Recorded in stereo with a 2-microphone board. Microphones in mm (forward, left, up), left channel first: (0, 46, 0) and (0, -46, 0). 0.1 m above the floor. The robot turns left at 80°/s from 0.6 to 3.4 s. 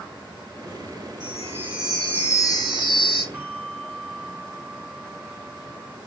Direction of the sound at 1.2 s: 125° right.